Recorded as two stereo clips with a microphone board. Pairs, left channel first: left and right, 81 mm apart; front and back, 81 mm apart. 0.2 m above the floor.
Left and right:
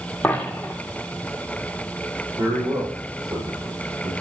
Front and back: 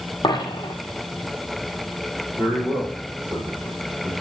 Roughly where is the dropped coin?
Ahead.